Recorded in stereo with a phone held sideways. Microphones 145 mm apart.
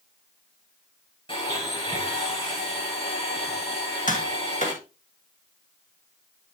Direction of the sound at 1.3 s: 35° left (ahead or behind).